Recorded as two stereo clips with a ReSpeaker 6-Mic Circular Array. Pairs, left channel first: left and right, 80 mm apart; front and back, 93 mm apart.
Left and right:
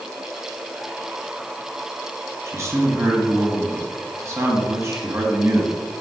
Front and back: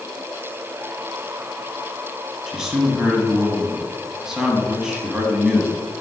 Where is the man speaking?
100° right, 1.4 m.